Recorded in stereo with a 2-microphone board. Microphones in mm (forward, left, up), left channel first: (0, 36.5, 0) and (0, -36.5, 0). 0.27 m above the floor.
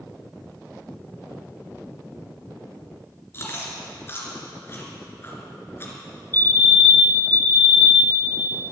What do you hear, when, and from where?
3.3 s chewing: 30° left (ahead or behind), 2.5 m
6.3 s a fire alarm: 25° left (ahead or behind), 2.0 m